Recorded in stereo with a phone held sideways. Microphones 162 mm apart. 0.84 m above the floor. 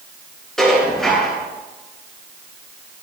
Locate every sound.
0.6 s dishes clattering: 5° left (ahead or behind), 7.5 m